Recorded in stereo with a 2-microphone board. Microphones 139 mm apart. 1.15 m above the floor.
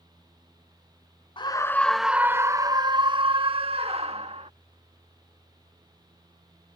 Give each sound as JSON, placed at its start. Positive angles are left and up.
{"t": 1.4, "sound": "a scream", "side_deg": 35}